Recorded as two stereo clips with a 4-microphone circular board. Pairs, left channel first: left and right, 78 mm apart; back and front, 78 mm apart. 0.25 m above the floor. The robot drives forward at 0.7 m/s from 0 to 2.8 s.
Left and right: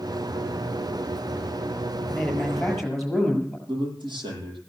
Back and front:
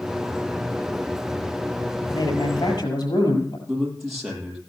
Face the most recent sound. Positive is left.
turn(degrees=-90)